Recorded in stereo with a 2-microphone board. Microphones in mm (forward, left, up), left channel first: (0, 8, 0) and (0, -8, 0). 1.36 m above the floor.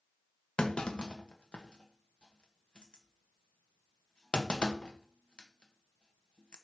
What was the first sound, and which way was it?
A clunk, 85° left.